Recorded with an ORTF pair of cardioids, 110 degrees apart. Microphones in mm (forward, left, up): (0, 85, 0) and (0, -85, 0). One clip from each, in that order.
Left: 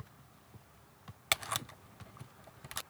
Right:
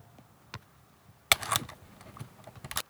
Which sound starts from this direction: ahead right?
A camera shutter, at 1.3 s.